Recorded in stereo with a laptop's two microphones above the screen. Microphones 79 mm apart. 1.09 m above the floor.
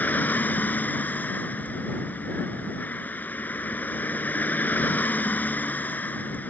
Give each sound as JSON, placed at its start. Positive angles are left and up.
{"t": 0.0, "sound": "a vehicle", "side_deg": 20}